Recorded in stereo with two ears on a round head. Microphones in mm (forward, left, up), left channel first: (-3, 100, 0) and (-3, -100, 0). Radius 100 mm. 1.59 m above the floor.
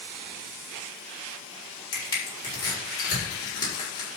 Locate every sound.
1.9 s crushing: 20° left (ahead or behind), 5 m